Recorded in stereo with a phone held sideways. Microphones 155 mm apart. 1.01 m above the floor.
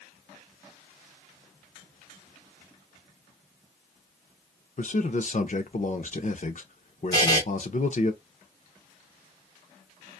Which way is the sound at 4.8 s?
55° left (ahead or behind).